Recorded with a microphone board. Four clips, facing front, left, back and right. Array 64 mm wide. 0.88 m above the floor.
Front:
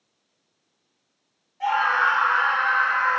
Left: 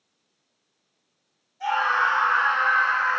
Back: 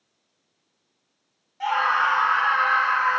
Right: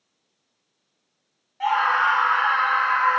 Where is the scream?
110° right, 1.7 m.